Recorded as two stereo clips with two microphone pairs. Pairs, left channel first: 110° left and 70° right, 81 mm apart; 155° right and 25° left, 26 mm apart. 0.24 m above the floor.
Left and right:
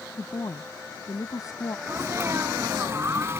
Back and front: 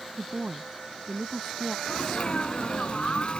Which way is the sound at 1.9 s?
120° right.